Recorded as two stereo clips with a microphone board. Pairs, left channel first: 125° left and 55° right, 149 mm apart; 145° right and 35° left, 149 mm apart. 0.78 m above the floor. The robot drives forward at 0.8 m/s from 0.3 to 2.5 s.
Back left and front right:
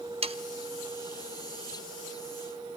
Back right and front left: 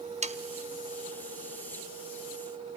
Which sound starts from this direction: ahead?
Sawing, at 0.2 s.